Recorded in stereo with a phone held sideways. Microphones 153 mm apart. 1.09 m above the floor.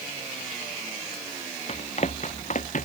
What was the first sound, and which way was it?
Running footsteps, 45° left (ahead or behind).